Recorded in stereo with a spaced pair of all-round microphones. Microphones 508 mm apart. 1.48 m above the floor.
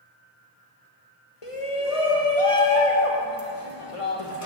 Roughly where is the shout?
Left.